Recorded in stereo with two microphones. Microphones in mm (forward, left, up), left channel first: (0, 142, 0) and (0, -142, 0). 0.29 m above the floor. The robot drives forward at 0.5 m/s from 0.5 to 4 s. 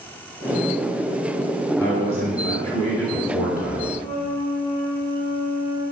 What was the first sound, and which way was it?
A man speaking, centre (ahead or behind).